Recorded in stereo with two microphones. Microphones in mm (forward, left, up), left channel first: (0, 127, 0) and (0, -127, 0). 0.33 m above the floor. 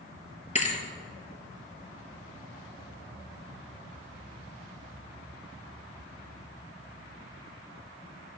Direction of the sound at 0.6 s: 30° left (ahead or behind).